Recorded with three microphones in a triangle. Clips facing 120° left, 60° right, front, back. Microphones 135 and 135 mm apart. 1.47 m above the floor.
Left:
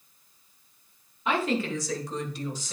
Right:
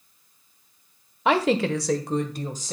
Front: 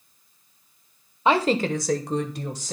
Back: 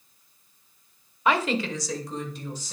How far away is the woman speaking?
About 1.0 m.